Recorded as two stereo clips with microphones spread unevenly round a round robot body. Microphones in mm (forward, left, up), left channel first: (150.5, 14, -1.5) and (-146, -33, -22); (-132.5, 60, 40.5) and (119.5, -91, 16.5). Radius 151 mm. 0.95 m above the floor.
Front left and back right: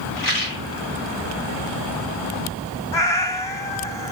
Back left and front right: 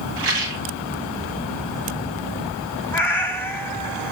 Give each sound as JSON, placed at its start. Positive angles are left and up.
{"t": 0.2, "sound": "a rattle", "azimuth_deg": -10, "distance_m": 2.0}
{"t": 2.9, "sound": "a cat meowing", "azimuth_deg": 75, "distance_m": 0.9}